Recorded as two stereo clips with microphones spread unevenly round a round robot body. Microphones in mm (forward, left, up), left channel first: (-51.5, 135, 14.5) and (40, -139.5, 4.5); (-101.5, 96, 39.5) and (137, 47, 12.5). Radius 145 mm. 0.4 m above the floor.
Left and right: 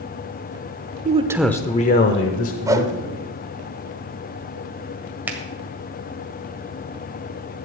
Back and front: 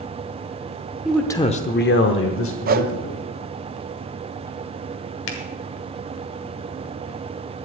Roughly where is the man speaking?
Right.